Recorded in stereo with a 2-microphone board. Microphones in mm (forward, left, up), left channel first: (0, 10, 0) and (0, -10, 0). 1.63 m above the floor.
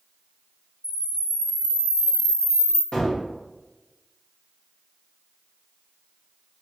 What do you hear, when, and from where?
0.8 s a camera shutter: 35° right (ahead or behind), 1.2 m
2.9 s a gunshot: 45° left (ahead or behind), 1.3 m